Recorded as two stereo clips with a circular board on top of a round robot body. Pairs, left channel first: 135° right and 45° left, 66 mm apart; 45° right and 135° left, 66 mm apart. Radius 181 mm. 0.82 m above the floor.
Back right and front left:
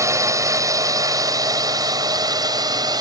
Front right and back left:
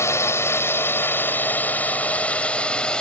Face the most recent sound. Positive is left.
turn(degrees=30)